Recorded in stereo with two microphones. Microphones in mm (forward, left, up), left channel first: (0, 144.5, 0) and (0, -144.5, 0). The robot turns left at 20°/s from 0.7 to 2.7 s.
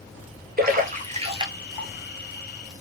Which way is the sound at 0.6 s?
30° right (ahead or behind).